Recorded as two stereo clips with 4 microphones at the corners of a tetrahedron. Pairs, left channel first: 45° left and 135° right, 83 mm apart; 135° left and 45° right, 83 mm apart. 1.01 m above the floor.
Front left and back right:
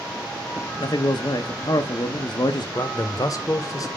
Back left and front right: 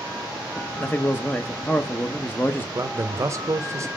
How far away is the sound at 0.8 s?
About 0.6 m.